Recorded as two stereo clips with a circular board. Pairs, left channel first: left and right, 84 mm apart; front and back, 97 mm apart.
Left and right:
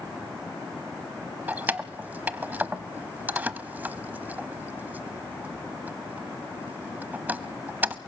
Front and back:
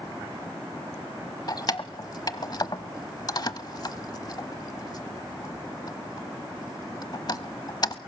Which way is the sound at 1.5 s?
25° right.